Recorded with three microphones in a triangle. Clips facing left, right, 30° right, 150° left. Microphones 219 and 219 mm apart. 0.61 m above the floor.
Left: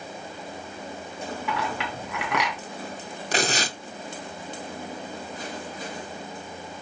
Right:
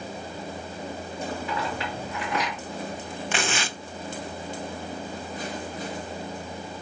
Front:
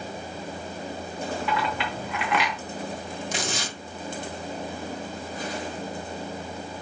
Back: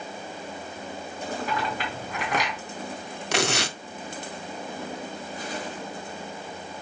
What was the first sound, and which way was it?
A clink, 105° left.